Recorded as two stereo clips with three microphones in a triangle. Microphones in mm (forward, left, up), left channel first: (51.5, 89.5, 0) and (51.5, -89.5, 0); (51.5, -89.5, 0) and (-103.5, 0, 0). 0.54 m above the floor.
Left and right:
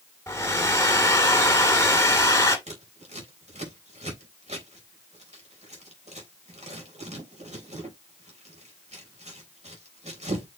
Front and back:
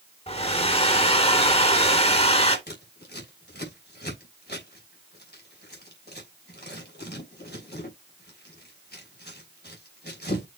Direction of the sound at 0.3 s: 20° left.